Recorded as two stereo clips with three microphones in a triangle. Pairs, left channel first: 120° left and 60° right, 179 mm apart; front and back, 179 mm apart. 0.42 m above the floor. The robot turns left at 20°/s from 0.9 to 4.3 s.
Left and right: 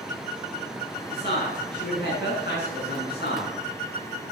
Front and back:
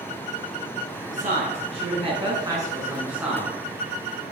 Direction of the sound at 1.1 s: 140° left.